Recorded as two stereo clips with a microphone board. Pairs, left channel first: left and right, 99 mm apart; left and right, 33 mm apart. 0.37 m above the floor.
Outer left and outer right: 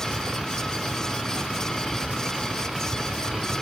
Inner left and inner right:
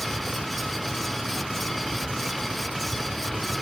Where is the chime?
I don't hear a chime.